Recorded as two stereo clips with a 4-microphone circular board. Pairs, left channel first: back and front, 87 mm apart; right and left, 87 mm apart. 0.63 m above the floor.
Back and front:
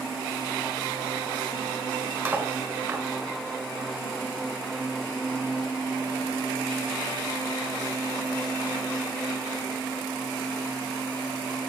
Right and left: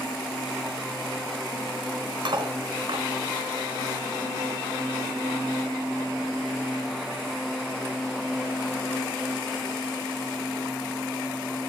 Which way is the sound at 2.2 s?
70° left.